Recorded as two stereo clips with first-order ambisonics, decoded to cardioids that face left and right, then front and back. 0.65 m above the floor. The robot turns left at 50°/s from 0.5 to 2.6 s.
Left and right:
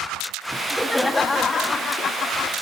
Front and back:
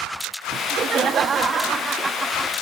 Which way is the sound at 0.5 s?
160° right.